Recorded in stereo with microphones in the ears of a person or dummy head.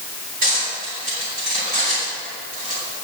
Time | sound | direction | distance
0.4 | cutlery clinking | 50° right (ahead or behind) | 5 m